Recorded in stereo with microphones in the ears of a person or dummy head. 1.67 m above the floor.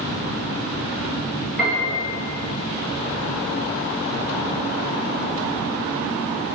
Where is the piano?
5° right (ahead or behind), 2.5 m.